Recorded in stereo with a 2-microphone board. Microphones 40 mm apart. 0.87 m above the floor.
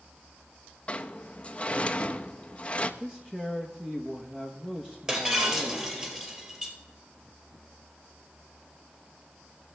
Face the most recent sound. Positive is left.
turn(degrees=-15)  # may be behind; listen again after turning